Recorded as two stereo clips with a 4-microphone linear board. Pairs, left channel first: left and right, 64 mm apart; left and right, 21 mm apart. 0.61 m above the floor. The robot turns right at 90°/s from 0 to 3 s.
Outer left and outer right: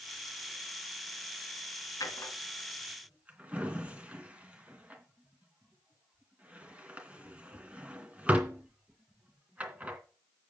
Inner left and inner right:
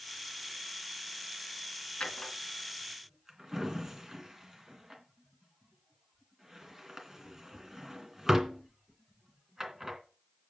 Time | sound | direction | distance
2.0 | a drawer | 70° left (ahead or behind) | 2.5 m